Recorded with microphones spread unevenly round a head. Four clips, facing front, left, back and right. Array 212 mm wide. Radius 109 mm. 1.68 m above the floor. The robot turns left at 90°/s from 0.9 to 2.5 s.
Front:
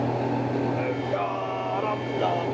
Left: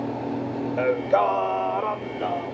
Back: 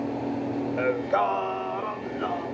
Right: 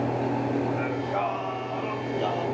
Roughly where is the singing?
Behind left.